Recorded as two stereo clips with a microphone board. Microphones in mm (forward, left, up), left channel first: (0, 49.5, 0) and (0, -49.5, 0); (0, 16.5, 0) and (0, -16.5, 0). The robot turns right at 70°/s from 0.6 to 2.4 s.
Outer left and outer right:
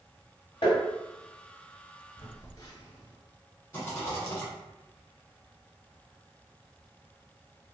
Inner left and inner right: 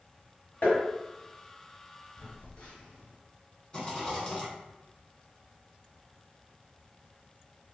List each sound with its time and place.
0.6 s tapping: 70° left (ahead or behind), 1.1 m; by 0.8 s 55° left (ahead or behind), 1.1 m
2.2 s a phone buzzing: 55° left (ahead or behind), 1.0 m; by 3.1 s 40° left (ahead or behind), 1.0 m
3.7 s a rattle: 20° left (ahead or behind), 1.2 m